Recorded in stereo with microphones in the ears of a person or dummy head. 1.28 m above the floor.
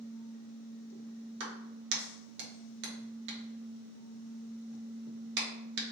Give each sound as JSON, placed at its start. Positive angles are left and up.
{"t": 1.4, "sound": "a clap", "side_deg": -65, "distance_m": 1.0}